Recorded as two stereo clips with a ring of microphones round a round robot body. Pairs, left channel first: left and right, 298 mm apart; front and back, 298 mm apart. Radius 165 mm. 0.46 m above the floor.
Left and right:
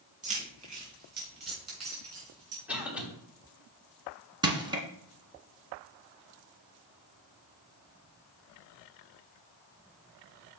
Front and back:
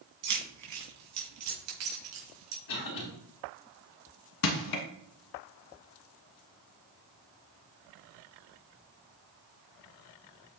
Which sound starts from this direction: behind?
Keys jangling, at 0.2 s.